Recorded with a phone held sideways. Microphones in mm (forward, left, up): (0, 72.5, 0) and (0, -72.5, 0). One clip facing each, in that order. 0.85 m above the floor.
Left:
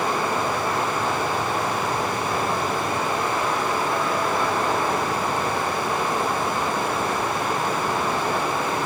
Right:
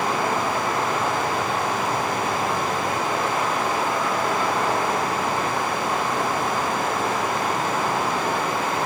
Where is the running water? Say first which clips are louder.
Right 1 dB; 70° right (ahead or behind), 6.5 m.